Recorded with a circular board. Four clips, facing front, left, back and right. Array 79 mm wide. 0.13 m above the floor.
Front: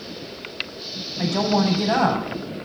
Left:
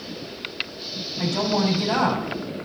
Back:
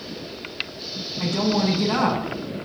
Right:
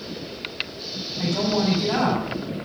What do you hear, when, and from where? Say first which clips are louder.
1.2 s a woman speaking: even, front 2 dB; 5° left, 7.5 m